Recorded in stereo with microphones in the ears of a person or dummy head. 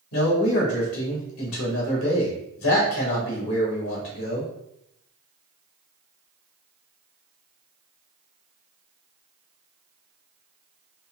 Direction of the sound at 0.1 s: 75° left (ahead or behind).